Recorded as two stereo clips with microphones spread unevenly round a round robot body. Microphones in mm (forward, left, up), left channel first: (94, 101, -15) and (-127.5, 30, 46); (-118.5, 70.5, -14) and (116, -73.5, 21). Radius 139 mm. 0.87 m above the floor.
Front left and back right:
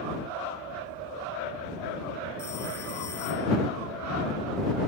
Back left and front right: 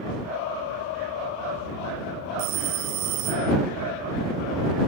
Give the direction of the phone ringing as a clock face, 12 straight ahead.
2 o'clock.